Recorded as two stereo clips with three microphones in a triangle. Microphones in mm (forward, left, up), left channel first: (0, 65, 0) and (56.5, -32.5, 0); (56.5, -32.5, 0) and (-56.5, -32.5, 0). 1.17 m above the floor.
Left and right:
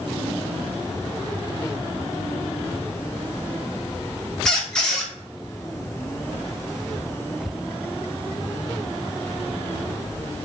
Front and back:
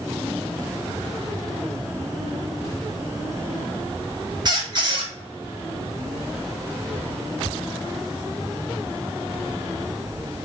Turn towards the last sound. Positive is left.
turn(degrees=-160)